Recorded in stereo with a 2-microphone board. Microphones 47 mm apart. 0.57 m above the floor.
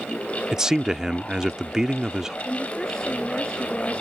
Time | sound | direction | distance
0.5 | a man speaking | 10° right (ahead or behind) | ?
2.5 | a woman speaking | 10° left (ahead or behind) | ?